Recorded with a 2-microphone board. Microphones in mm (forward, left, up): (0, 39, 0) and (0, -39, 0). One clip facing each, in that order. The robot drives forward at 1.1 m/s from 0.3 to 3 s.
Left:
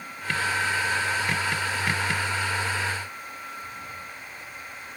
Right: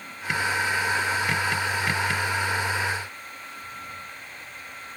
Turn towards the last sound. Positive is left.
No sound to turn to.